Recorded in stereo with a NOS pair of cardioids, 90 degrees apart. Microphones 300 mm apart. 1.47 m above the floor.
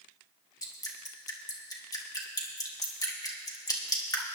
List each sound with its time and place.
0.6 s dripping: 10° left, 1.8 m